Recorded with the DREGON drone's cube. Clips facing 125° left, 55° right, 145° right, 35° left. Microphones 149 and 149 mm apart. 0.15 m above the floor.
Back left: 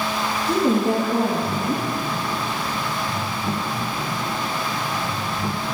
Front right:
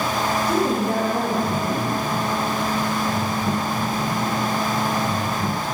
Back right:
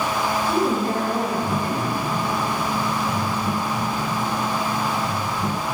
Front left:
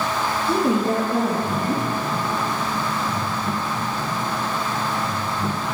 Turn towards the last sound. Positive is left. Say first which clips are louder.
# back left 5 dB, front left 4 dB
turn(degrees=70)